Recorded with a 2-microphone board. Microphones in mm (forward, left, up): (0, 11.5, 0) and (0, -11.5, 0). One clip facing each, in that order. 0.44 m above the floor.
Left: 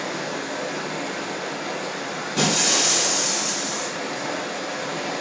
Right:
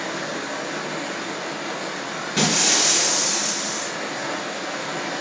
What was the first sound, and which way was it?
Running water, 45° right (ahead or behind).